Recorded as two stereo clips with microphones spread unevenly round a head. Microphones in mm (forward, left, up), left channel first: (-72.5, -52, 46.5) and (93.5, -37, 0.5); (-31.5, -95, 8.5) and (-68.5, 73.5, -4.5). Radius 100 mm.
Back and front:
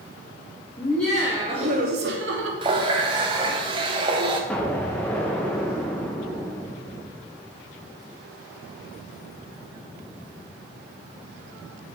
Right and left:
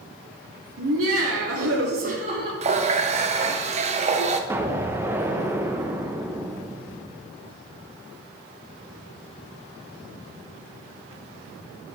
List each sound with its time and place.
0.8 s laughter: 110° left, 1.4 m; by 2.5 s 30° left, 1.7 m
2.6 s a running tap: 80° left, 0.8 m
4.5 s an explosion: 175° left, 0.9 m